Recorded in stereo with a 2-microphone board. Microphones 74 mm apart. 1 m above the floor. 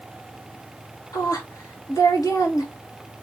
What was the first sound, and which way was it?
A woman speaking, 50° left (ahead or behind).